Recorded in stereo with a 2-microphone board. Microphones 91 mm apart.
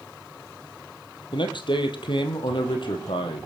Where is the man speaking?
60° left (ahead or behind), 3 m; by 3.5 s 65° left (ahead or behind), 4 m.